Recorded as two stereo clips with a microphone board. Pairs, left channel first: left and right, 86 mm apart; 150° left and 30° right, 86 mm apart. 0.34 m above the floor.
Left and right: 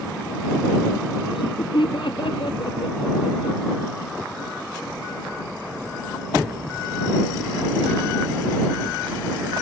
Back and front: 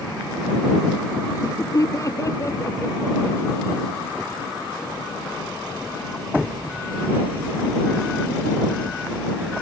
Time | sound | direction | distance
1.3 | laughter | 100° left | ?